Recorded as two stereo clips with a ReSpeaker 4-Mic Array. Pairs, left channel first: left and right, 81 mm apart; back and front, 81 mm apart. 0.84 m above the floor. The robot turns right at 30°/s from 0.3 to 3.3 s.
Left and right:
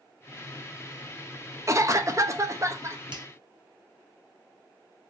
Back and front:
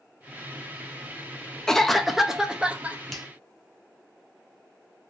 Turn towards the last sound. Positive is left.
turn(degrees=-85)